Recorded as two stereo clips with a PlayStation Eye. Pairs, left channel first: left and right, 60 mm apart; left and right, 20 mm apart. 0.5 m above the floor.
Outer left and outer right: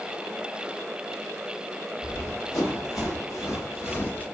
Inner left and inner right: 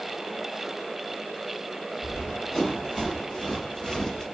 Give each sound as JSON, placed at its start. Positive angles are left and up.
{"t": 2.0, "sound": "running footsteps", "side_deg": 65, "distance_m": 1.9}